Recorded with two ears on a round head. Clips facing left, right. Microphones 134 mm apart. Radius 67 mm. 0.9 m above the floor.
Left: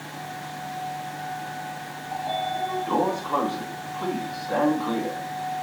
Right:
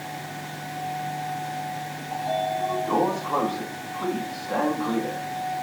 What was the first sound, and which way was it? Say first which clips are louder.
A sliding door: right 2 dB; centre (ahead or behind).